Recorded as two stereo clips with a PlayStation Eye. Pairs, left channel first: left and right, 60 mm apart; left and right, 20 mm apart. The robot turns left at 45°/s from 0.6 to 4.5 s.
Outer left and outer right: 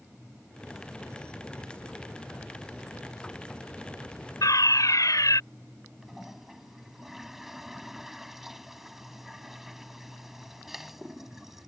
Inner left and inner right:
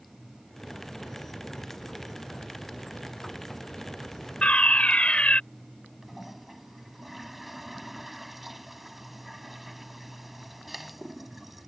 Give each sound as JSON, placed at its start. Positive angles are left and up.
{"t": 4.4, "sound": "a fire alarm", "side_deg": 80}
{"t": 6.0, "sound": "a toilet flushing", "side_deg": -5}